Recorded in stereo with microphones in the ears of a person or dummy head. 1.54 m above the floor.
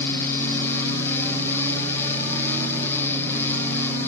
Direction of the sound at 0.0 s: 15° left (ahead or behind).